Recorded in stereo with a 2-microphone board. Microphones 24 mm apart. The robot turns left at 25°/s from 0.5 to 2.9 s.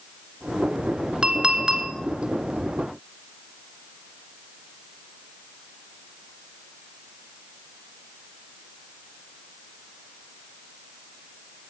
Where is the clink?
50° right (ahead or behind), 1.2 m; by 1.9 s 40° right (ahead or behind), 1.2 m.